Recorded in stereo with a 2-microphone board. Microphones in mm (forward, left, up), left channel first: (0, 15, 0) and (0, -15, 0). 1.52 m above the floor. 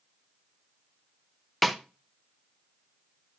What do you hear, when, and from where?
1.6 s a snare drum: centre (ahead or behind), 0.5 m